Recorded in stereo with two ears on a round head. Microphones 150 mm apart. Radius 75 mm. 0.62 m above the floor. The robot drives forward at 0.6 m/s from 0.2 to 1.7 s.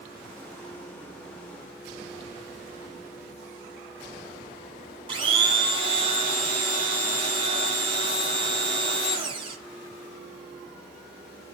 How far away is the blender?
About 1.2 m.